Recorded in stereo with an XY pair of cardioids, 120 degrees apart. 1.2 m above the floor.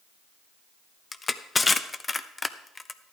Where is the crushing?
20° left, 0.6 m.